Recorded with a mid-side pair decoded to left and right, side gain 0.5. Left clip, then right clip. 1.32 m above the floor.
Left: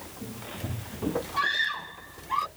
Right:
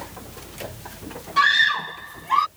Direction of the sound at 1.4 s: 50° right.